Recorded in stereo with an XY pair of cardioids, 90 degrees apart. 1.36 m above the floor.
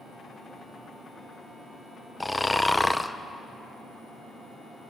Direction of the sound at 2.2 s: 10° left.